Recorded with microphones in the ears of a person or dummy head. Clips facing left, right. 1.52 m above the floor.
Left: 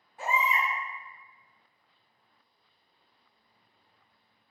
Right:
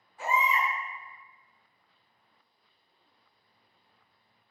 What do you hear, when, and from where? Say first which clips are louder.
0.2 s a baby crying: right 1 dB; 45° left (ahead or behind), 1.2 m